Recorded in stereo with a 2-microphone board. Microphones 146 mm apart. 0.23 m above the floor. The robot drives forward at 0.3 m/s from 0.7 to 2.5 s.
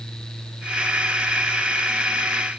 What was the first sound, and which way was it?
Only background noise.